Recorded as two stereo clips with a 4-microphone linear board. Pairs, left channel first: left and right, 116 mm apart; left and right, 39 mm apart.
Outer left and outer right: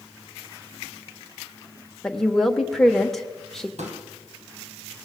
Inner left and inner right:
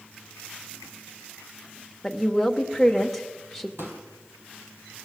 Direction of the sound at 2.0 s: Centre (ahead or behind).